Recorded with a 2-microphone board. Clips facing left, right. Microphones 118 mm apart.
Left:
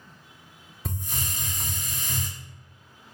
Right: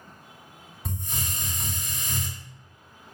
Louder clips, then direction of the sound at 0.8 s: Even; centre (ahead or behind).